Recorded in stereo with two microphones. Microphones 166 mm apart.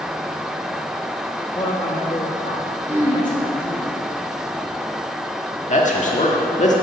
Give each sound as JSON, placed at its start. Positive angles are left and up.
{"t": 1.6, "sound": "a man speaking", "side_deg": 30, "distance_m": 0.9}
{"t": 2.9, "sound": "throat clearing", "side_deg": -10, "distance_m": 1.6}
{"t": 5.7, "sound": "a man speaking", "side_deg": 45, "distance_m": 1.4}